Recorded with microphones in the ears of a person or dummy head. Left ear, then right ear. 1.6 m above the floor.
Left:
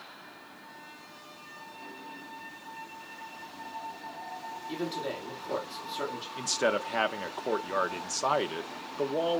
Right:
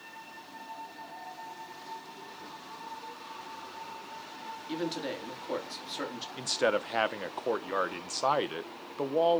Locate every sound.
4.7 s a man speaking: 35° right (ahead or behind), 3.5 m
6.4 s a man speaking: 10° right (ahead or behind), 0.6 m